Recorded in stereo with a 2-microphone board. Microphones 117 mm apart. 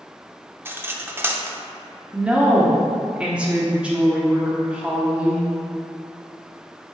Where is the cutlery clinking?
20° right (ahead or behind), 0.6 m.